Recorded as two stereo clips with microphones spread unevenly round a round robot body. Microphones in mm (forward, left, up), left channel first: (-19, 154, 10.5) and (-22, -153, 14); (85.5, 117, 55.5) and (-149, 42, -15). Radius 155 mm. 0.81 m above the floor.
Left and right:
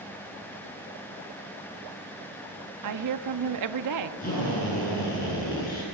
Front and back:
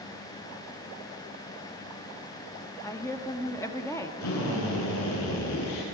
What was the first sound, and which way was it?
A woman speaking, 70° right.